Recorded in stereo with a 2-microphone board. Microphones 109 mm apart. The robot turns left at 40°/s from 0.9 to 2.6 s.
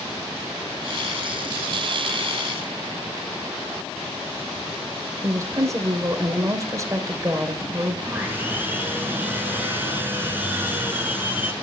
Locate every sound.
5.2 s a woman speaking: 30° right (ahead or behind), 2.5 m
8.0 s sawing: 20° right (ahead or behind), 4 m